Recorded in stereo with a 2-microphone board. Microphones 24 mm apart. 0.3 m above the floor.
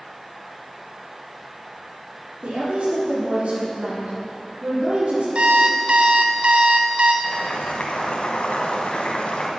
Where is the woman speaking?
75° right (ahead or behind), 5 m.